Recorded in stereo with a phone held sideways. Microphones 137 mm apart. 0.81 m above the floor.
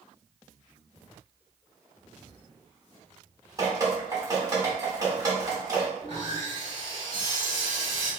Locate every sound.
3.6 s dripping: 30° right (ahead or behind), 1.2 m
6.0 s sawing: 55° left (ahead or behind), 1.7 m